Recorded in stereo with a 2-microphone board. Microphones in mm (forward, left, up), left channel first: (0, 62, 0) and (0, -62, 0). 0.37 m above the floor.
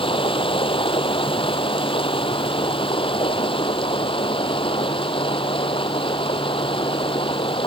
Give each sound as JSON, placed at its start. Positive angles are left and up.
{"t": 0.0, "sound": "running water", "side_deg": 45}